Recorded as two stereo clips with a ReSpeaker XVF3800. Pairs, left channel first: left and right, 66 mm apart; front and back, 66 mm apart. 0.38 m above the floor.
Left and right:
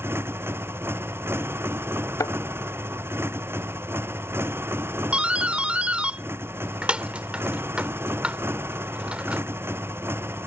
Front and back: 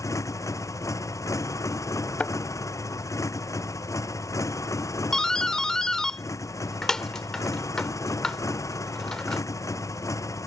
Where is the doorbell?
65° right.